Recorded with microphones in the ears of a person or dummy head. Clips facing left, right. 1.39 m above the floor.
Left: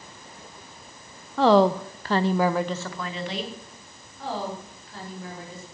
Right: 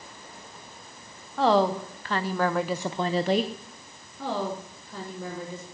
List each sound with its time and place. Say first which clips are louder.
1.4 s a woman speaking: left 4 dB; 60° left (ahead or behind), 0.8 m; by 3.5 s 50° right (ahead or behind), 0.7 m
4.2 s a woman speaking: right 1 dB; 90° right, 3 m